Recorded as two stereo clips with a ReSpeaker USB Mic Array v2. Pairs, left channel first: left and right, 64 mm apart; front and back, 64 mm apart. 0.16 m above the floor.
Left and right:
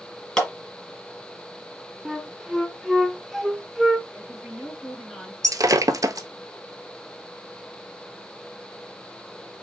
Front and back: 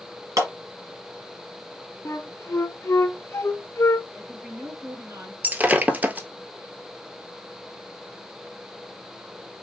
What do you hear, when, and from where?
0.4 s a clap: 165° left, 2 m
2.0 s a flute: straight ahead, 0.6 m
4.1 s a woman speaking: 170° left, 2.0 m
5.4 s breaking glass: 115° right, 0.6 m